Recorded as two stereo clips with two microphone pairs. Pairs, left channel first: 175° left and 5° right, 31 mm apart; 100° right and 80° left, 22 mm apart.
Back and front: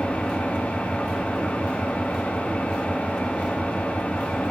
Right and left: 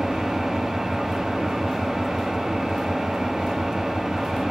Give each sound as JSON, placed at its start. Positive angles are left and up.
{"t": 0.0, "sound": "an engine running", "azimuth_deg": 140, "distance_m": 2.0}